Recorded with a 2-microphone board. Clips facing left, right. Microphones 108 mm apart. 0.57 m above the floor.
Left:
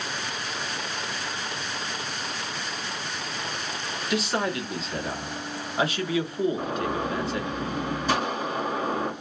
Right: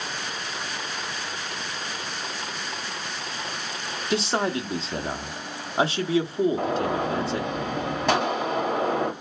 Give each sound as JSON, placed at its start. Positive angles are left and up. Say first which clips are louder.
{"t": 4.1, "sound": "a man speaking", "louder": "right 2 dB", "side_deg": -30, "distance_m": 0.8}
{"t": 6.6, "sound": "a gunshot", "louder": "right 3 dB", "side_deg": -70, "distance_m": 2.0}